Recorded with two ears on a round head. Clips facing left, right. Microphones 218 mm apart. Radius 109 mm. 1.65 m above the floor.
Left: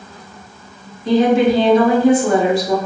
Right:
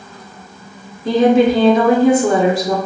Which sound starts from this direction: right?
A woman speaking, at 1.1 s.